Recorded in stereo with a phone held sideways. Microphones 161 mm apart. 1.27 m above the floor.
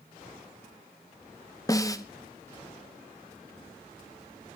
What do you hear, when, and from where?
1.7 s a snare drum: 20° left (ahead or behind), 1.2 m